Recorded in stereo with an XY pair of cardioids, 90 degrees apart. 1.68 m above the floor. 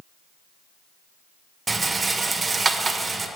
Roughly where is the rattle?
Ahead right.